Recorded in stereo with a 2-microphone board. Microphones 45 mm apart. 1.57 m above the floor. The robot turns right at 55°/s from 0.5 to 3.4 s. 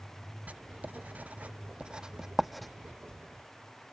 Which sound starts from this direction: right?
Writing, at 0.5 s.